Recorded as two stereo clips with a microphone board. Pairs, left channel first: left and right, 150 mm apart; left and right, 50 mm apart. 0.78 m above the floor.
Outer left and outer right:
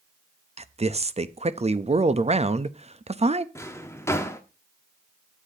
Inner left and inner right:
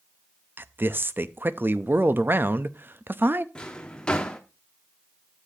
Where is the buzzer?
I don't hear a buzzer.